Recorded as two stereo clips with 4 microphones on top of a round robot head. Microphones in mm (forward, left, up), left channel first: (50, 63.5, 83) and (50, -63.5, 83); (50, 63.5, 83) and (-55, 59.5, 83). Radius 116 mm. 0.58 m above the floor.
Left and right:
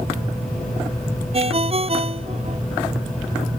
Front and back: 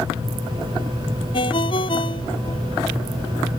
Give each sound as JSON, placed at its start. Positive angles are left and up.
{"t": 1.3, "sound": "a ringtone", "azimuth_deg": -50}